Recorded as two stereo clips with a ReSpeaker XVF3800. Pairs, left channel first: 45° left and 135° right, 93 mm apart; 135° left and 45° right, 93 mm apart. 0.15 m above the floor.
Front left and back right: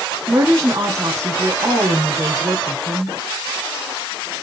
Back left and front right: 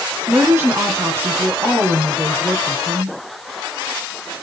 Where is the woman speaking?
95° right, 2 m.